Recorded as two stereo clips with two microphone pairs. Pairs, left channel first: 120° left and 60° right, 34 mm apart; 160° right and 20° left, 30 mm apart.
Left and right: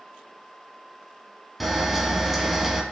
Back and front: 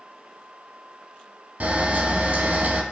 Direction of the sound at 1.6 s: 25° left.